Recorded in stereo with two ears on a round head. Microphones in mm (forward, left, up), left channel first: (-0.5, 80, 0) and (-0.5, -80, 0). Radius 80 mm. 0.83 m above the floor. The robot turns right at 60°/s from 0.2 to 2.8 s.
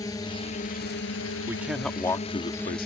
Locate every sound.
0.0 s a drone: 20° left (ahead or behind); by 2.9 s centre (ahead or behind)
1.5 s a man speaking: 20° right; by 2.9 s 60° left